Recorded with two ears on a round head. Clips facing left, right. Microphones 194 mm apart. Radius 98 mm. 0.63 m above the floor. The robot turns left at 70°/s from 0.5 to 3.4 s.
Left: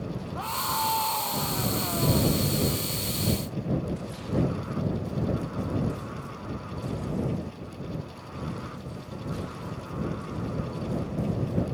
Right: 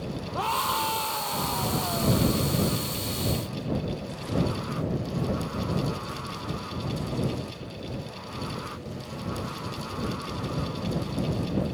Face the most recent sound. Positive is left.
turn(degrees=35)